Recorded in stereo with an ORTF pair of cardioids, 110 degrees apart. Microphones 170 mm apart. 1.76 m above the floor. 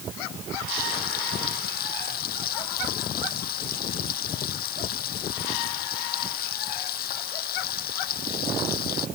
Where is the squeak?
I don't hear a squeak.